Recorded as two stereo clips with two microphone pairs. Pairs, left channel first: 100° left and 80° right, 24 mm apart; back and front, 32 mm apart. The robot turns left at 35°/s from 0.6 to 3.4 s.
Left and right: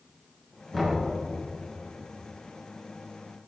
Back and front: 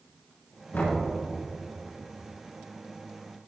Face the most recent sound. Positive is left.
turn(degrees=95)